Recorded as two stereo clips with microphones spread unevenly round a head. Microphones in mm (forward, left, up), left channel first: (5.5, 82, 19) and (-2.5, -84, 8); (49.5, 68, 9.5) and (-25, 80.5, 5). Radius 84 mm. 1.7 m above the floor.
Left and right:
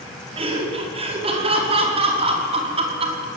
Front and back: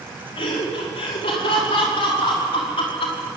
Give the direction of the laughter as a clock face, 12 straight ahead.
1 o'clock.